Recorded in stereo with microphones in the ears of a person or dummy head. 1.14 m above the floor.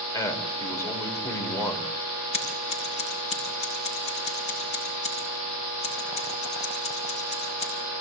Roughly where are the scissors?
Left.